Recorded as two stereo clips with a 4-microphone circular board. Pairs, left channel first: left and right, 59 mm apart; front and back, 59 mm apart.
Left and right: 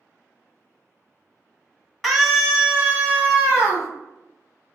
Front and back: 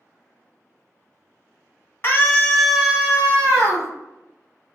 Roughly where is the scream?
Ahead.